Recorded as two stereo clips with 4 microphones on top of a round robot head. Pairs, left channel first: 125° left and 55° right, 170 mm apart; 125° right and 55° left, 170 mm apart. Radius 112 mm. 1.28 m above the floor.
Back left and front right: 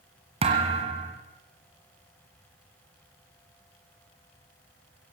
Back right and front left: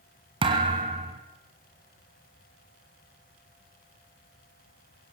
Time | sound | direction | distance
0.4 | a thud | 5° right | 1.6 m